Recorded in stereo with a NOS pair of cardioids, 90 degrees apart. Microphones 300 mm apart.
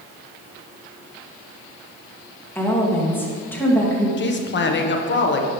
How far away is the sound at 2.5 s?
About 2.5 m.